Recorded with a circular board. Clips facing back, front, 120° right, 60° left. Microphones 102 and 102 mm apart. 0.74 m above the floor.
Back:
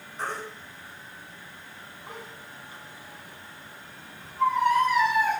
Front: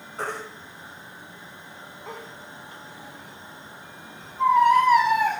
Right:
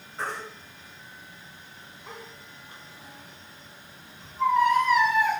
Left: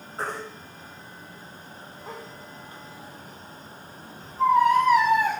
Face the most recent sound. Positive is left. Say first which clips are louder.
# front 2 dB, left 2 dB
turn(degrees=10)